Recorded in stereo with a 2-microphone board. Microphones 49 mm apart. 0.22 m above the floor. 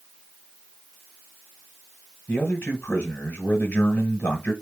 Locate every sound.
2.3 s a man speaking: 30° left (ahead or behind), 1.2 m